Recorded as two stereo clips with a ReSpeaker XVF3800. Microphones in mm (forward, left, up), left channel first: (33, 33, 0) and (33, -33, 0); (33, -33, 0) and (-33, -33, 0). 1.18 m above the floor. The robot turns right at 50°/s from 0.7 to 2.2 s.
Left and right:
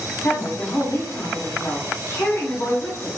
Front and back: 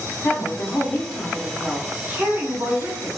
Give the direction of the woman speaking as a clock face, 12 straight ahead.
10 o'clock.